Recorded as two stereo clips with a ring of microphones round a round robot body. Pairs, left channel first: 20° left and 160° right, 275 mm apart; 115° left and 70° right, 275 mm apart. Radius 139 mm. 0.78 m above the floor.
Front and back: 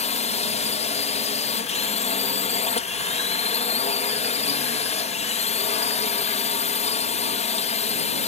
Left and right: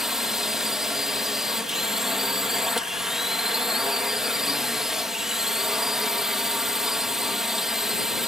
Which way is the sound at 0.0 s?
20° left.